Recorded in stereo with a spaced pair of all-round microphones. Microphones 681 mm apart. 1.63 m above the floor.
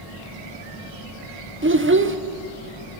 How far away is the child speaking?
About 0.5 m.